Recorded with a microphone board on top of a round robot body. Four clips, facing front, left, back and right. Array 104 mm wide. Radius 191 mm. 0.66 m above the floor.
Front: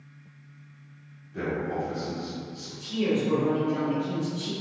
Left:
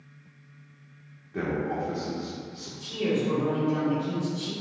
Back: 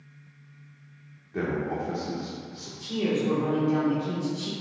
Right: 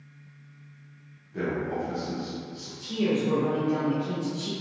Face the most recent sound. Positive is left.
turn(degrees=-160)